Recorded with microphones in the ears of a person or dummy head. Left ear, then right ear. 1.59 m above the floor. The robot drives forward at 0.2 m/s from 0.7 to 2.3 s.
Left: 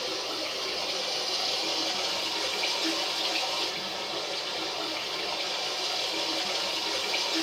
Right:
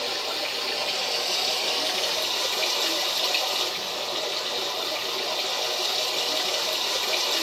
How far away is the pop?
No pop in this recording.